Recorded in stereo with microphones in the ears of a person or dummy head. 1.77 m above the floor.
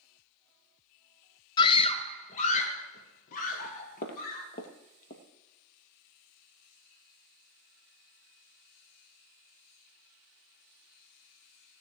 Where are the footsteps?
45° left (ahead or behind), 3 m.